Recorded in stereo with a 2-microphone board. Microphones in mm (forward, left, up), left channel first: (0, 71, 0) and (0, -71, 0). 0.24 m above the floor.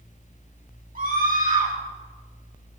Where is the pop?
I don't hear a pop.